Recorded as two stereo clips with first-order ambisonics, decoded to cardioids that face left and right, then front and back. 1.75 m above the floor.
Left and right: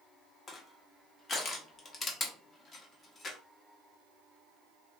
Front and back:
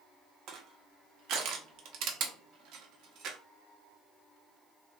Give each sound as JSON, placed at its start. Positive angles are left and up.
{"t": 0.5, "sound": "crushing", "azimuth_deg": 150, "distance_m": 0.7}